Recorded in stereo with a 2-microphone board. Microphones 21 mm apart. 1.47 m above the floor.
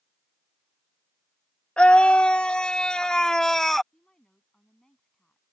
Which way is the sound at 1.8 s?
65° left (ahead or behind).